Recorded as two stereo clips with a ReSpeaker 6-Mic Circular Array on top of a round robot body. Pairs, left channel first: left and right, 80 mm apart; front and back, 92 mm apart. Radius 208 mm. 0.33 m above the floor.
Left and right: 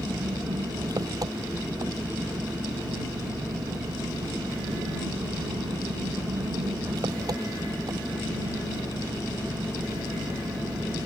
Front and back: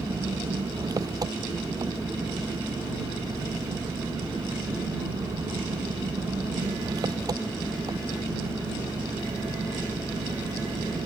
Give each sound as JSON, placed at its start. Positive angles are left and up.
{"t": 0.0, "sound": "an engine running", "azimuth_deg": -135}